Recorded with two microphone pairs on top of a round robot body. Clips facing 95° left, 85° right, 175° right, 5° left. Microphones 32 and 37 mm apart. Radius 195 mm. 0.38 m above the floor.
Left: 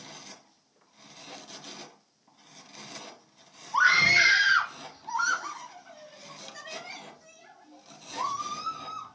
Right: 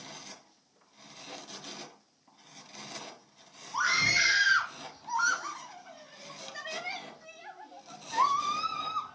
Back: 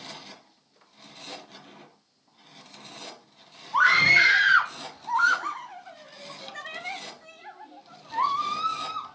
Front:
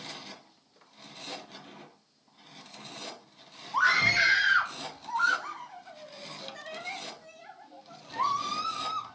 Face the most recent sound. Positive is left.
turn(degrees=-115)